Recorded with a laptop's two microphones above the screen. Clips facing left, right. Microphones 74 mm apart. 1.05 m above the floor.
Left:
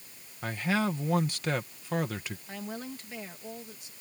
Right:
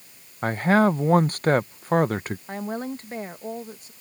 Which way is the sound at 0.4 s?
45° right (ahead or behind).